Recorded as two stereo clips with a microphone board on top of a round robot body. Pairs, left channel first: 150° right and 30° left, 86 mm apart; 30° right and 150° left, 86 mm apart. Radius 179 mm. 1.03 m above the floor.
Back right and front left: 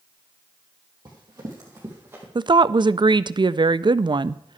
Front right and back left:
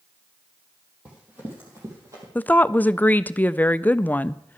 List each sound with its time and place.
1.1 s running footsteps: 75° left, 2.5 m; by 2.2 s 100° left, 3 m
2.4 s a woman speaking: 35° left, 0.6 m